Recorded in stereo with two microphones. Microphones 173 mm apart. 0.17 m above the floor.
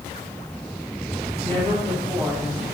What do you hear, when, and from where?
1.4 s a woman speaking: 15° left (ahead or behind), 4.5 m; by 2.6 s 5° left (ahead or behind), 4.5 m